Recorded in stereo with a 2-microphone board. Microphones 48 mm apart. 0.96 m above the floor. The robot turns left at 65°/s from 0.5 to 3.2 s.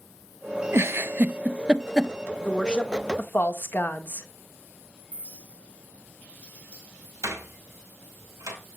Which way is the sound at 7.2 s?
85° right.